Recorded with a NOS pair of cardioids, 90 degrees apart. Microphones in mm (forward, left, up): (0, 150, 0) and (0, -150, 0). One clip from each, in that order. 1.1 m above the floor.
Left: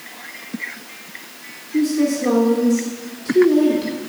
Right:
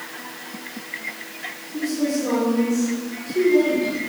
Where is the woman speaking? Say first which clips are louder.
Left 5 dB; 55° left, 3.5 m.